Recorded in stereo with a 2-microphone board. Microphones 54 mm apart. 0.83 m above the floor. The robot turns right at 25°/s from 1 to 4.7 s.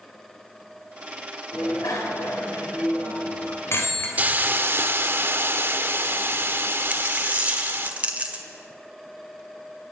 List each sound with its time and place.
1.5 s a bicycle bell: 75° left (ahead or behind), 3 m; by 4.1 s 40° left (ahead or behind), 3 m
4.2 s a hiss: 30° right (ahead or behind), 0.8 m; by 7.9 s 45° right (ahead or behind), 0.8 m
6.9 s a dropped coin: 25° right (ahead or behind), 1.5 m